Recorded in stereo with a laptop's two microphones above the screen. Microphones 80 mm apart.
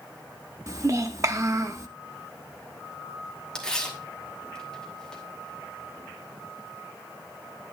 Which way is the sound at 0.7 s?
40° right (ahead or behind).